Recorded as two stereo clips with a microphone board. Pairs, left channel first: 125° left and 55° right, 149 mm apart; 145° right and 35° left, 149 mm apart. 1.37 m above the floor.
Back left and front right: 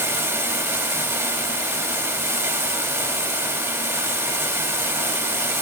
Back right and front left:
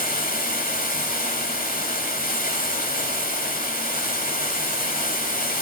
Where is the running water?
125° right, 2 m.